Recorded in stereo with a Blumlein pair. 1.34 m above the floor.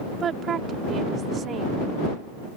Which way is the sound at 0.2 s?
25° right.